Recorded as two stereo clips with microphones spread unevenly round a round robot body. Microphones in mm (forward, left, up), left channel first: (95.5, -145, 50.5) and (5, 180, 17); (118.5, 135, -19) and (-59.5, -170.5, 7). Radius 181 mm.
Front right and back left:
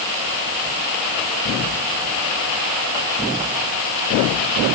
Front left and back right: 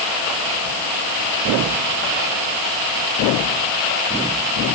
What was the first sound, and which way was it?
Only background noise.